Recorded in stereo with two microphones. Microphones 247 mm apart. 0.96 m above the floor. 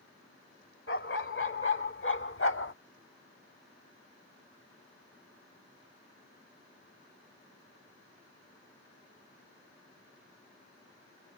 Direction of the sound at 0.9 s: 50° left (ahead or behind).